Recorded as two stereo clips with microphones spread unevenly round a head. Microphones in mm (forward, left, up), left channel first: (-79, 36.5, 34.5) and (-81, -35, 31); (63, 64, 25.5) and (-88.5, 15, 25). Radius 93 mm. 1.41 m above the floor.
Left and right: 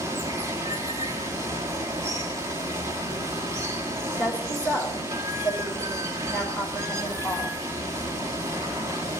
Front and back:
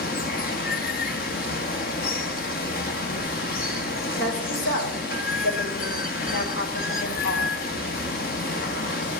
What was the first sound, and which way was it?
Running water, 25° right.